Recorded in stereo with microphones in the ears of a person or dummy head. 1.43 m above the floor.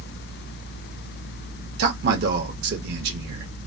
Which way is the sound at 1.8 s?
60° right (ahead or behind).